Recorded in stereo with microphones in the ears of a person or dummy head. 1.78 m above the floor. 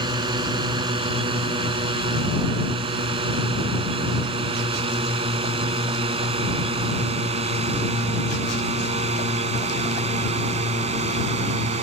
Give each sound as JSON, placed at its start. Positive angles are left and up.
{"t": 0.0, "sound": "a drone", "side_deg": -30}